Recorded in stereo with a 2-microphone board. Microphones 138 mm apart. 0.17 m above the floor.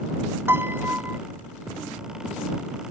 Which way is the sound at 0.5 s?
15° right (ahead or behind).